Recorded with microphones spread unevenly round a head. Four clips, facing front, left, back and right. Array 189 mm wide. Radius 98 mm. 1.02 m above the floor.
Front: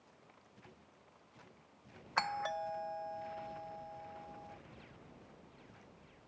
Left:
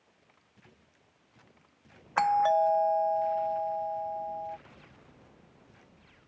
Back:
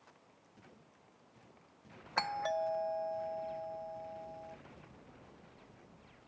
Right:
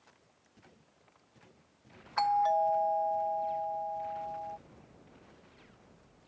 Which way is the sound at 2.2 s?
110° left.